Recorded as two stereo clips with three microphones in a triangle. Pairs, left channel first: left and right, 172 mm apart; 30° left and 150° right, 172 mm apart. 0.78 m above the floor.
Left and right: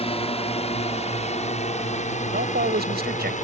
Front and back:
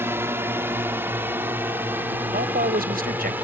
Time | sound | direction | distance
0.0 | a drone | 135° left | ?
2.3 | a man speaking | 115° right | ?